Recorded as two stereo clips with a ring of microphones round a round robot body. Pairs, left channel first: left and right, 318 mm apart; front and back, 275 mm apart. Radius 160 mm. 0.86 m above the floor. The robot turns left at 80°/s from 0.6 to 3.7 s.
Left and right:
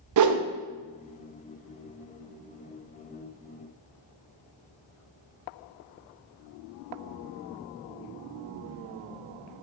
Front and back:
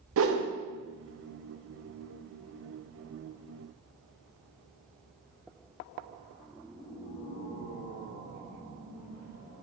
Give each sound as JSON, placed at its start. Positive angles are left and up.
{"t": 0.2, "sound": "a whoosh", "azimuth_deg": -130, "distance_m": 0.5}